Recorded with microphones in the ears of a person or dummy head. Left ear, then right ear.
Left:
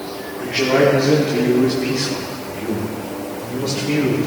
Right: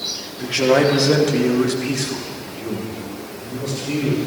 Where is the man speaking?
85° right, 1.5 m; by 4.3 s 25° left (ahead or behind), 3 m.